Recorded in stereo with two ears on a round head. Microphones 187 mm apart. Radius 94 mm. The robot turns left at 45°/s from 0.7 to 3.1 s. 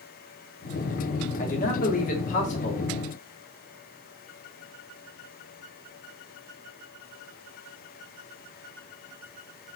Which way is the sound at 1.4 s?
115° left.